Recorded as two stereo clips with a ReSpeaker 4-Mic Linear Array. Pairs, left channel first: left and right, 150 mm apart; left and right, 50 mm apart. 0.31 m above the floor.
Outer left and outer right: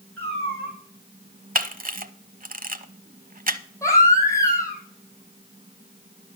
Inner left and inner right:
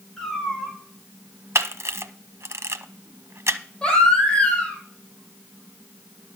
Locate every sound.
0.2 s a cat meowing: 10° left (ahead or behind), 4.5 m
1.6 s a camera shutter: 70° right (ahead or behind), 0.7 m
3.8 s a baby crying: 20° left (ahead or behind), 3 m